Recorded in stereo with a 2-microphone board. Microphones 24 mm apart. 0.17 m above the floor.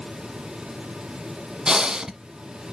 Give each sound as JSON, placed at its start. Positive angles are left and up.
{"t": 1.7, "sound": "breathing", "side_deg": -30, "distance_m": 1.0}